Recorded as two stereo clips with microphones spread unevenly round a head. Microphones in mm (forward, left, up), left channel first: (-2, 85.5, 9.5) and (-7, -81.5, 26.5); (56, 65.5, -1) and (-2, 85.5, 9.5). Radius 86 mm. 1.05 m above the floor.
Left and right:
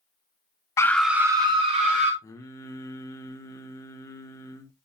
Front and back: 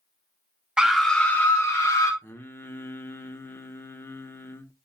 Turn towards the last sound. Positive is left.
turn(degrees=20)